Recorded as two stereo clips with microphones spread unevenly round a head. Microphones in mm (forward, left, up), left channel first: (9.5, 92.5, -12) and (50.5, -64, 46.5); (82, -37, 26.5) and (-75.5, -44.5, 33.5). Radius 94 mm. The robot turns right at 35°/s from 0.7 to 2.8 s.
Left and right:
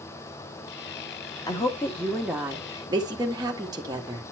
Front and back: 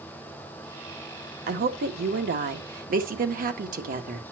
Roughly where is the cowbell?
I don't hear a cowbell.